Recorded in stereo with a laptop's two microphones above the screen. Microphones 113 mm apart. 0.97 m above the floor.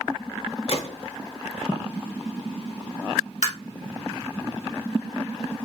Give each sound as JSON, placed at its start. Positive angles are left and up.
{"t": 0.7, "sound": "a gunshot", "side_deg": 55, "distance_m": 1.0}
{"t": 3.4, "sound": "tapping", "side_deg": 75, "distance_m": 1.9}